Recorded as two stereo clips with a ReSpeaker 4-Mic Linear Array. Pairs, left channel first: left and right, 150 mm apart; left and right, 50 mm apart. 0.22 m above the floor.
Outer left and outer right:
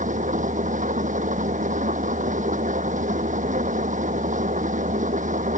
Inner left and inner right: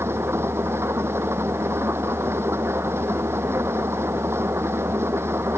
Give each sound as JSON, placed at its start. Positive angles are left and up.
{"t": 0.0, "sound": "an engine running", "side_deg": -60}